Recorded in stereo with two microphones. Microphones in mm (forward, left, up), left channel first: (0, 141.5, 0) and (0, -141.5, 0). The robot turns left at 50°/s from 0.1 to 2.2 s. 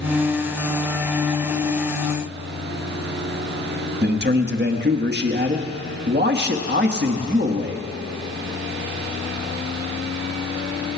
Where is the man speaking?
35° right (ahead or behind), 1.1 m.